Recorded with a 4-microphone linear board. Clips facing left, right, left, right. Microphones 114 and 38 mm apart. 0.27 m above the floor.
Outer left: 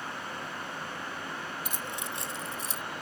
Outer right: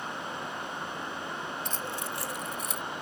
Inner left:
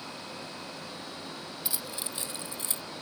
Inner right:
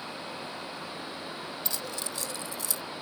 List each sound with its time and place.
1.6 s keys jangling: 10° left (ahead or behind); by 2.8 s 35° left (ahead or behind)